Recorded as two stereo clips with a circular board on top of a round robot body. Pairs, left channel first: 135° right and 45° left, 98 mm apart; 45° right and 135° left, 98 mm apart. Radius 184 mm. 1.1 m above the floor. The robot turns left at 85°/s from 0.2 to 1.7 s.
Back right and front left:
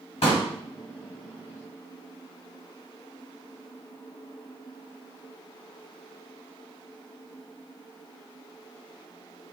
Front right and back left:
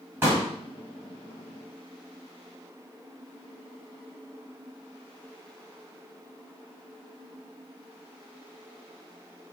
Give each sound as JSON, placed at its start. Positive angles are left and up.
{"t": 0.2, "sound": "a pop", "azimuth_deg": -155, "distance_m": 1.7}